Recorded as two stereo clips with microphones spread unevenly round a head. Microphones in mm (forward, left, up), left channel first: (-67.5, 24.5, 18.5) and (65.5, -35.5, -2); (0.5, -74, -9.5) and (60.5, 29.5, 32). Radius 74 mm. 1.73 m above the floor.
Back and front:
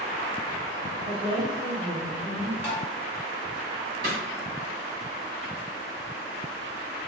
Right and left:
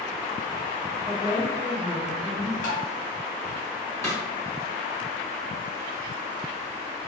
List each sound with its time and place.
1.1 s a woman speaking: 45° right, 1.5 m
2.6 s tapping: 105° right, 0.9 m
4.0 s a snare drum: 45° right, 1.8 m